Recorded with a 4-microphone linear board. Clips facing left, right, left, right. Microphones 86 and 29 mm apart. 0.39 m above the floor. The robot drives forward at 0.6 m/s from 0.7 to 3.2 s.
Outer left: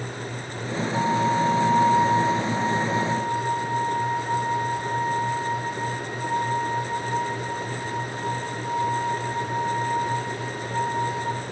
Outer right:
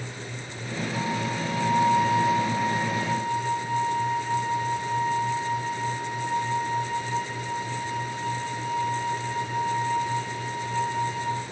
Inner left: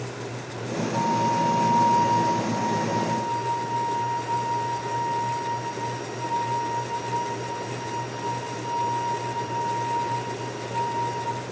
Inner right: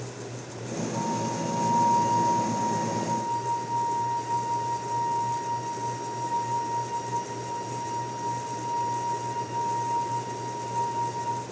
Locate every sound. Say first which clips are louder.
0.9 s a flute: outer left 8 dB, inner left 8 dB; 45° left (ahead or behind), 1.4 m; by 11.4 s 30° left (ahead or behind), 2 m